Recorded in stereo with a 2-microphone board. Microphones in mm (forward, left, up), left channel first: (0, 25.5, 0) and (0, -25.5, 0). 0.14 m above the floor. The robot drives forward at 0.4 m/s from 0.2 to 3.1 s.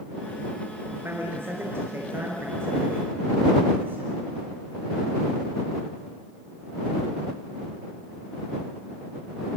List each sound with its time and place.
0.9 s a man speaking: 50° right (ahead or behind), 3 m; by 4.1 s 45° right (ahead or behind), 3 m